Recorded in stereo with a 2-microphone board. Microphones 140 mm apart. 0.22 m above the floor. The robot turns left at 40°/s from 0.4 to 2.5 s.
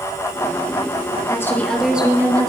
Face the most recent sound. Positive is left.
turn(degrees=-25)